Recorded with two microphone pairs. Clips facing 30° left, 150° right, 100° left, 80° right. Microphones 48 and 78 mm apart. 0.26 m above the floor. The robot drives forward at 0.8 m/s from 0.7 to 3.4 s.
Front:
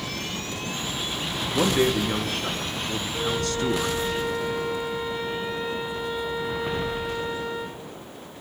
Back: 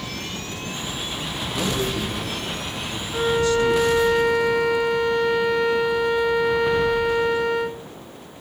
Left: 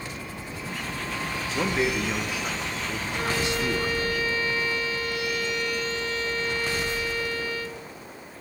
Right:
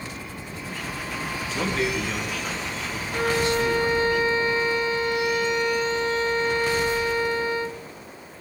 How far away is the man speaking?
About 3.5 m.